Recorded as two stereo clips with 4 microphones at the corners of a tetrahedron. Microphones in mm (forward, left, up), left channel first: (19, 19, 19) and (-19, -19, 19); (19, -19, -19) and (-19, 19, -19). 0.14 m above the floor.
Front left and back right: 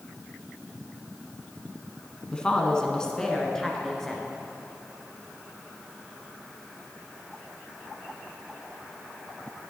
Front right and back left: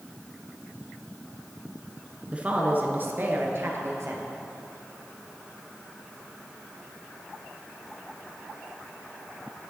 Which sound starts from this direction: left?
A woman speaking, at 2.3 s.